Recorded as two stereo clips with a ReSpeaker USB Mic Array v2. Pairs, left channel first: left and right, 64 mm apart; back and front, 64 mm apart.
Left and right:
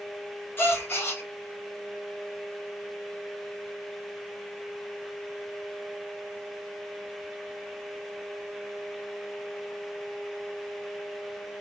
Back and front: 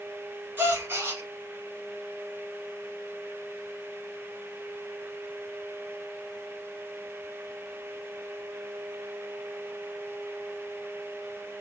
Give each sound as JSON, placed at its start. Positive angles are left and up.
{"t": 0.6, "sound": "a gasp", "azimuth_deg": 50, "distance_m": 0.8}